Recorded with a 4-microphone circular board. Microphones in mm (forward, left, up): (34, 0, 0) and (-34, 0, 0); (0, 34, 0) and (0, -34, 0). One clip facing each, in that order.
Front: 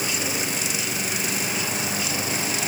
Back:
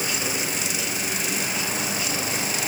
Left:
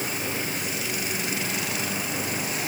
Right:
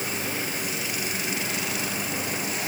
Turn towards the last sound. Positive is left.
No sound to turn to.